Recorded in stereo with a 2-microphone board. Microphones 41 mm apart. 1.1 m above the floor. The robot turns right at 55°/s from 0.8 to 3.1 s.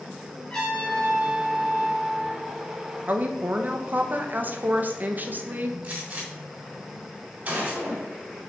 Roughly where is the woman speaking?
Right.